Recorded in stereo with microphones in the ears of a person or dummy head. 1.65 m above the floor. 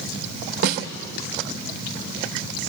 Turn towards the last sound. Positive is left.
turn(degrees=-60)  # may be behind; listen again after turning